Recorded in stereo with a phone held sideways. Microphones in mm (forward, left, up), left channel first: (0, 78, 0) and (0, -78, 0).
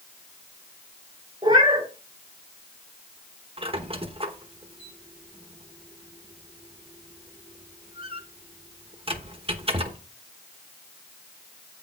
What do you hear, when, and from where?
1.4 s a cat meowing: 30° right (ahead or behind), 2.5 m
3.6 s a squeak: 35° right (ahead or behind), 1.1 m